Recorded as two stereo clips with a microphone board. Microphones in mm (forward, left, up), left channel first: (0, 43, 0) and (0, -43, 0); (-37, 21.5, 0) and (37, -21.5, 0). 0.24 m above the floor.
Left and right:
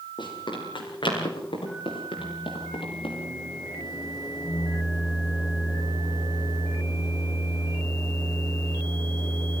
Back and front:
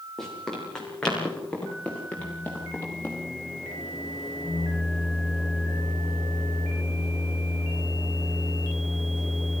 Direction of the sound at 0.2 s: 65° left.